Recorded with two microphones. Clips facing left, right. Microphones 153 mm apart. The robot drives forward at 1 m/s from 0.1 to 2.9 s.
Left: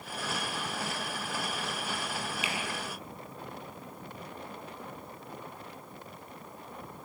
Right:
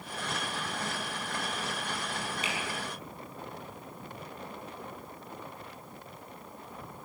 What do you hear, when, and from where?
2.4 s a finger snap: 35° right (ahead or behind), 6.5 m